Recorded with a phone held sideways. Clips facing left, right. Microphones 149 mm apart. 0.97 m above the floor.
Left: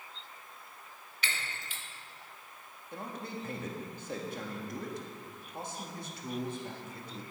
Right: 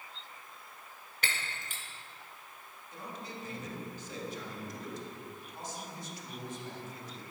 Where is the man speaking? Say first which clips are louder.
Left 4 dB; 55° left (ahead or behind), 1.7 m.